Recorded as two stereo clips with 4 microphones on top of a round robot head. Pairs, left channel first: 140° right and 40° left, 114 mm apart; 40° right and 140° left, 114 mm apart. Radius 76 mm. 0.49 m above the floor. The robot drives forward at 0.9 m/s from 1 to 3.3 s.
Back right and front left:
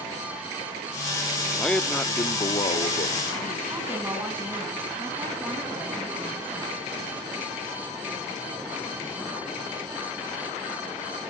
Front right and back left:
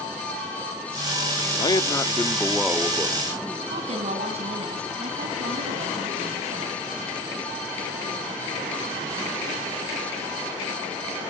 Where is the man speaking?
55° right, 1.2 m; by 3.6 s 155° right, 1.6 m.